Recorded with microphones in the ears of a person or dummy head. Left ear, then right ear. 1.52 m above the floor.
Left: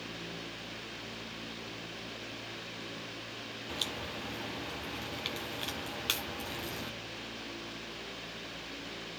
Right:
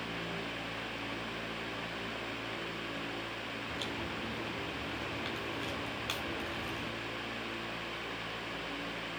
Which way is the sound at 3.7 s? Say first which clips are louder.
Left 4 dB; 5° left (ahead or behind).